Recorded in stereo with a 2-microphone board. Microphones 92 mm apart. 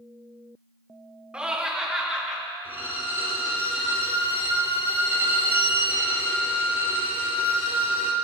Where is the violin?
85° left, 2.0 m.